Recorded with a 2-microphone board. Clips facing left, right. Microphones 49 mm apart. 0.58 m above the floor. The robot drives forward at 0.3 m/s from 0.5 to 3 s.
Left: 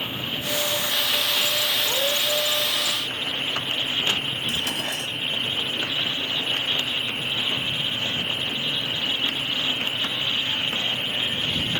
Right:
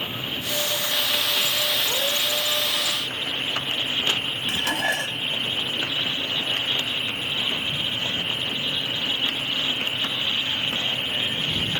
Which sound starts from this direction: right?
Dishes clattering, at 4.5 s.